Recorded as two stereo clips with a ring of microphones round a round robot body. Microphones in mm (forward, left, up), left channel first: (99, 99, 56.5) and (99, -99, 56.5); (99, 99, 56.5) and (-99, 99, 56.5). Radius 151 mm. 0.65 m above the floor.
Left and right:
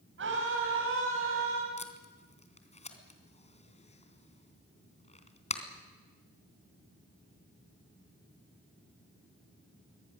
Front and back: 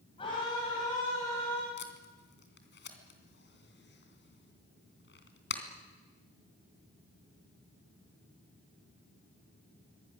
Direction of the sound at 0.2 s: 70° right.